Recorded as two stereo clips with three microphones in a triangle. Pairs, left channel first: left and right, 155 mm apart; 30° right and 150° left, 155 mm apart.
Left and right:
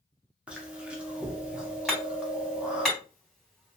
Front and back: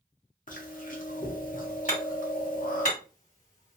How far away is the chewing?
About 0.9 m.